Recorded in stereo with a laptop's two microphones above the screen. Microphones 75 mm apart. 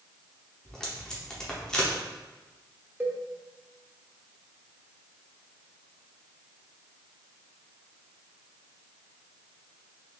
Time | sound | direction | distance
0.7 | tape being pulled | 10° left (ahead or behind) | 0.7 m
3.0 | a cowbell | 25° right (ahead or behind) | 0.6 m